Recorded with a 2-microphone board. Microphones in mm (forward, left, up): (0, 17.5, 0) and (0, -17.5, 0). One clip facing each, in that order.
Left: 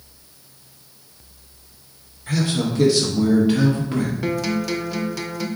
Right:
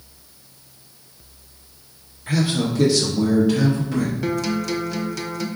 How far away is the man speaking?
About 1.1 m.